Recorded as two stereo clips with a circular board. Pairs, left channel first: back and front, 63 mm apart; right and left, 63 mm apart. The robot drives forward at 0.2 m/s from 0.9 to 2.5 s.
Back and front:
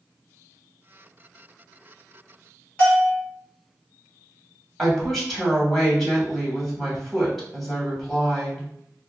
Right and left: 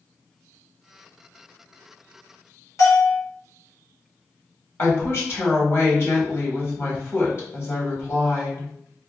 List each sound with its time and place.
2.8 s a bell: 120° right, 1.5 m
4.8 s a woman speaking: 95° right, 1.2 m